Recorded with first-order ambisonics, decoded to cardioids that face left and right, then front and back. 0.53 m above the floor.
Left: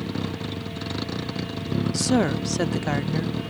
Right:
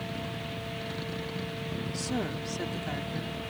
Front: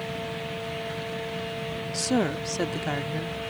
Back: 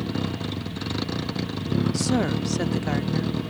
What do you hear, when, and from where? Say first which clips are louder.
0.0 s a vehicle: left 5 dB, back 2 dB; 140° left
1.9 s a woman speaking: left 12 dB, front 3 dB; 90° left